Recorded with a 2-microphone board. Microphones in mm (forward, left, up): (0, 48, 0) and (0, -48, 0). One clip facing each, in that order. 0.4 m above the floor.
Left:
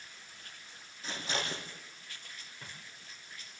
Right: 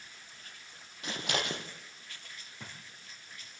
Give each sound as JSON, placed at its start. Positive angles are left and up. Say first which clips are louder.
{"t": 1.0, "sound": "scissors", "louder": "right 2 dB", "side_deg": -80, "distance_m": 4.5}
{"t": 2.6, "sound": "a drawer", "louder": "right 3 dB", "side_deg": -75, "distance_m": 6.5}